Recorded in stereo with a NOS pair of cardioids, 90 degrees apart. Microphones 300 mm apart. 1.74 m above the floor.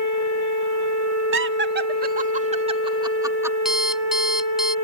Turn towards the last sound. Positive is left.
turn(degrees=0)